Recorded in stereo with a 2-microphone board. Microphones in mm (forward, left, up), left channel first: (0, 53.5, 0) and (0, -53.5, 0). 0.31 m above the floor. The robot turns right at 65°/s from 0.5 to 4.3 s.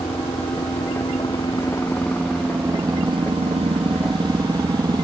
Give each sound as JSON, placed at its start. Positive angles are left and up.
{"t": 0.0, "sound": "a helicopter", "azimuth_deg": 65}